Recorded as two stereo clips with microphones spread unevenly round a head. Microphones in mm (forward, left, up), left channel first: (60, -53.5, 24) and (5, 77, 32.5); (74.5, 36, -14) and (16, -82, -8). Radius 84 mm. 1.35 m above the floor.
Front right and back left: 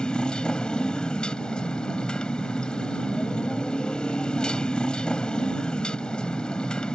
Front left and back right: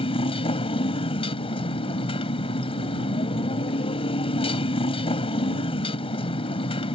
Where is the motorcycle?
20° left.